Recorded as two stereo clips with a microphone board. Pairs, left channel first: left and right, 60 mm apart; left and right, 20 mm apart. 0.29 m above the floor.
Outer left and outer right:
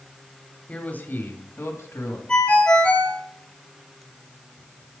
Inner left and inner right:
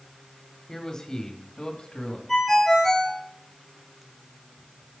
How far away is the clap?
I don't hear a clap.